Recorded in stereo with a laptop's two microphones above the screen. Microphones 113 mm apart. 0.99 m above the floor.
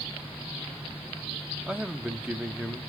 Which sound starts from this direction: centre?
A man speaking, at 1.7 s.